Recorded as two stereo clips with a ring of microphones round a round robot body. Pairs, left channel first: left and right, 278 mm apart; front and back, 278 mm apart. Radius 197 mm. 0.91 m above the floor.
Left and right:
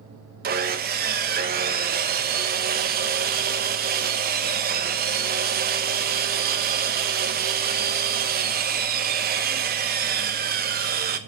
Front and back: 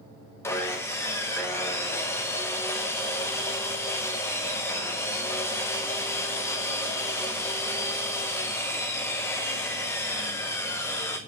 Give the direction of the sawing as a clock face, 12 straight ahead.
2 o'clock.